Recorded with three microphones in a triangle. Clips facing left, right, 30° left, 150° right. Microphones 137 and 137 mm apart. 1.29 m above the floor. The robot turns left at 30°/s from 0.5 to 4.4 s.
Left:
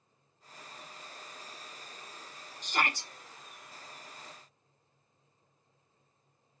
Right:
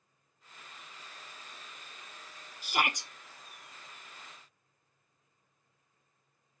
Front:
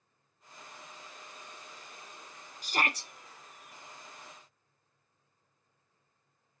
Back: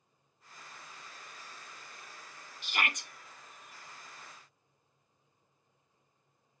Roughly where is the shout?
Ahead.